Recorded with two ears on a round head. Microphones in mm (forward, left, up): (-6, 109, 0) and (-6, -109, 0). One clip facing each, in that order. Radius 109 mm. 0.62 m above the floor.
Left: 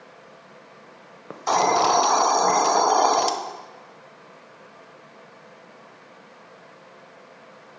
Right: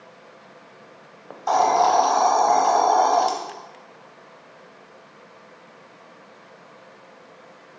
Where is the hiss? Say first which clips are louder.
Right 1 dB; 35° left (ahead or behind), 0.5 m.